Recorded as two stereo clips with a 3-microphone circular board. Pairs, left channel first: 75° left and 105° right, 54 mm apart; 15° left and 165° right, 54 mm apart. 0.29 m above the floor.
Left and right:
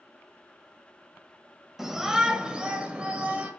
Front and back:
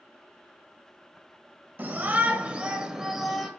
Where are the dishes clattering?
I don't hear dishes clattering.